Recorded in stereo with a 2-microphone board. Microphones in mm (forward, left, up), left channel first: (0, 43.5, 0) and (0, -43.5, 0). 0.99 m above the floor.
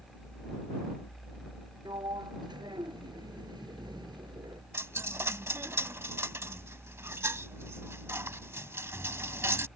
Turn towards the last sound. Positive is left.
turn(degrees=-30)  # may be behind; listen again after turning